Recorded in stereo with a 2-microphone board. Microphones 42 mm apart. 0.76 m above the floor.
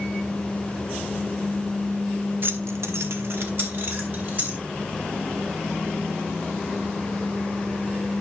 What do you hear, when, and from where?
2.4 s keys jangling: 50° right (ahead or behind), 0.8 m; by 4.6 s 45° right (ahead or behind), 3 m